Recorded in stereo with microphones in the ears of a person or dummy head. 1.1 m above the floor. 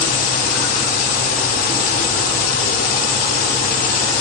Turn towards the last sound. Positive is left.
turn(degrees=45)  # may be behind; listen again after turning